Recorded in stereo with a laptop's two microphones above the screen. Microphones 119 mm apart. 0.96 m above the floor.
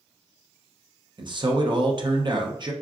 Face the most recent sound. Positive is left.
turn(degrees=-40)  # may be behind; listen again after turning